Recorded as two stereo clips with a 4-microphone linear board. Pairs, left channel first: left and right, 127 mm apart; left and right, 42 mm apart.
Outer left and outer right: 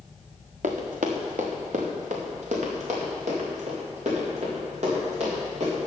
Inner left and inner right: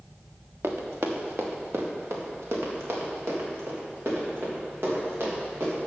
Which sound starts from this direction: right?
Running footsteps, at 0.6 s.